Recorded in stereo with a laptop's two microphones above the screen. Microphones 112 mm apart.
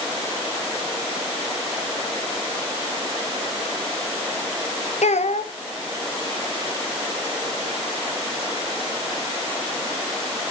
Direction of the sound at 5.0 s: 85° left.